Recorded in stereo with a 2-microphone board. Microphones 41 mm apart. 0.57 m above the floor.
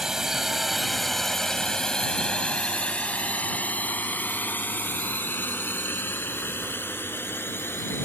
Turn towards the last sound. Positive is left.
turn(degrees=65)  # may be behind; listen again after turning